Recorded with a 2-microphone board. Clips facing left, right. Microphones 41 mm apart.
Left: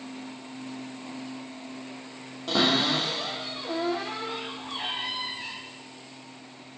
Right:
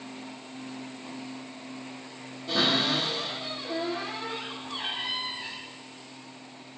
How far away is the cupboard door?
About 2 m.